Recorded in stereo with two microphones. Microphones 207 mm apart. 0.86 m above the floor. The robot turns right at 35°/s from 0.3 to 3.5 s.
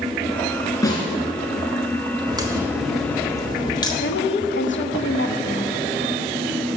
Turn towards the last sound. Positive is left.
turn(degrees=65)  # may be behind; listen again after turning